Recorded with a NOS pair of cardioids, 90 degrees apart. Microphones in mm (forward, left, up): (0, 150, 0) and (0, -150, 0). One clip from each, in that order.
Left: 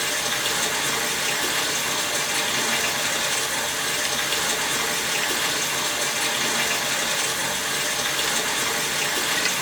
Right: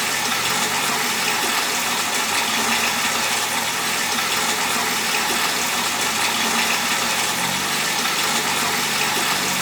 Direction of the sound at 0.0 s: 65° right.